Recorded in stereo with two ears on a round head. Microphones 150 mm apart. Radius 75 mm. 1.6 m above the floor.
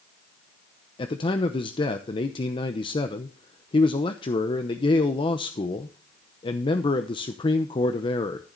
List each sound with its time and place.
1.0 s a man speaking: 30° left (ahead or behind), 0.8 m